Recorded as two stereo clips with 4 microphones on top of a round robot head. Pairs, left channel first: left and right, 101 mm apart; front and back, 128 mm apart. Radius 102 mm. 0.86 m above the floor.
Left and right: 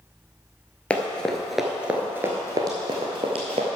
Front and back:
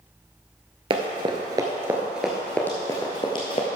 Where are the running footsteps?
160° left, 1.0 m; by 3.6 s 55° right, 1.2 m.